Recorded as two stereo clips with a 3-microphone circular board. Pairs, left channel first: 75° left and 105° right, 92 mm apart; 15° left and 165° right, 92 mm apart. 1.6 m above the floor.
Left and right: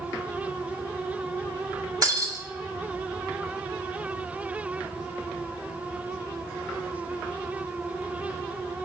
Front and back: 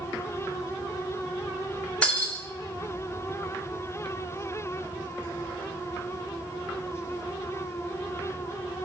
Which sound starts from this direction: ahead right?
Breaking glass, at 2.0 s.